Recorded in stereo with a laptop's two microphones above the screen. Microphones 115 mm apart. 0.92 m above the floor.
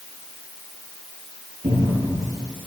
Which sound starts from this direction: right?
A cupboard door, at 1.6 s.